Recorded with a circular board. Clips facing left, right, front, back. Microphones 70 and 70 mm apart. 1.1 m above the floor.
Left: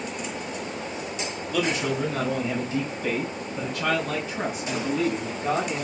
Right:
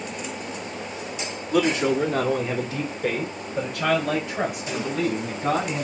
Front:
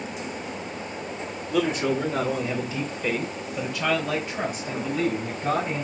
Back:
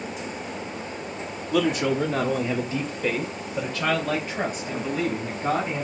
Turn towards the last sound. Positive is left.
turn(degrees=-120)